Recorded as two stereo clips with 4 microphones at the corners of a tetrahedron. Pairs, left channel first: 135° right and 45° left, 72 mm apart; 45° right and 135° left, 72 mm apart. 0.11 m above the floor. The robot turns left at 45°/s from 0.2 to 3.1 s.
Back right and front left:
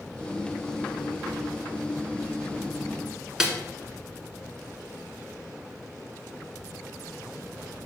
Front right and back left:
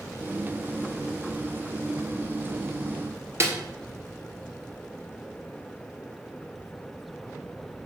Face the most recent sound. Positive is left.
turn(degrees=125)